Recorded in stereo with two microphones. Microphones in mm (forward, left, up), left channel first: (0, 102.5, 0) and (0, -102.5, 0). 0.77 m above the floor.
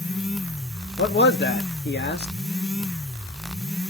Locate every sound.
1.0 s a man speaking: 55° left (ahead or behind), 0.9 m